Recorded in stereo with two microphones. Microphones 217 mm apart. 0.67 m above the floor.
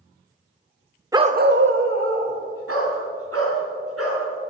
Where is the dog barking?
15° right (ahead or behind), 0.5 m; by 4.2 s 85° right, 4 m.